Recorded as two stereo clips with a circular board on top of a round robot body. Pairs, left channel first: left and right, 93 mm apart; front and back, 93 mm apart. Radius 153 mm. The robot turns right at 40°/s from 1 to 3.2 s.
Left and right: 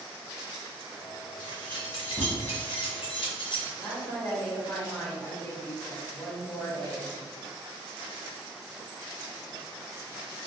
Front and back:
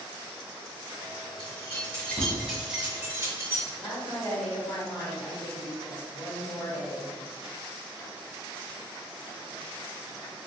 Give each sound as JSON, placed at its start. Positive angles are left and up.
{"t": 1.4, "sound": "keys jangling", "azimuth_deg": 45, "distance_m": 1.4}
{"t": 3.8, "sound": "a woman speaking", "azimuth_deg": 35, "distance_m": 1.5}